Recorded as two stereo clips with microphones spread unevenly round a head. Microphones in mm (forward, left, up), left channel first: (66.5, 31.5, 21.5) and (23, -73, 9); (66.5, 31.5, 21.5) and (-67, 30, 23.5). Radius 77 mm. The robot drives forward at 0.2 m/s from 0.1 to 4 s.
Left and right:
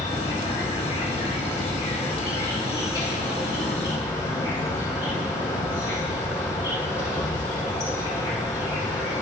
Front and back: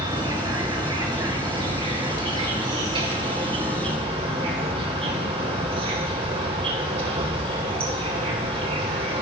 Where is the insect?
120° left, 2.5 m; by 9.2 s 135° left, 3 m.